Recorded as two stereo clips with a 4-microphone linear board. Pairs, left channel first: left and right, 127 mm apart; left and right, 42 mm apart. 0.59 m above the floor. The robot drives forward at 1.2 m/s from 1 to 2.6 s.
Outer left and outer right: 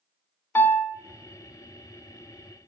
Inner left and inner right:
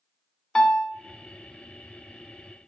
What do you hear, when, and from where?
0.6 s a piano: 15° left (ahead or behind), 0.6 m